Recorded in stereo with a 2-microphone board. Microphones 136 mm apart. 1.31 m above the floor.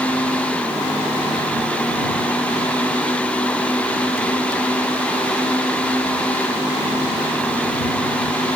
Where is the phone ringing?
No phone ringing in this recording.